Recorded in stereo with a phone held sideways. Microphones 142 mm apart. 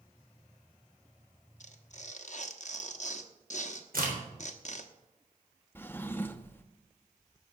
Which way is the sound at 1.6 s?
55° left (ahead or behind).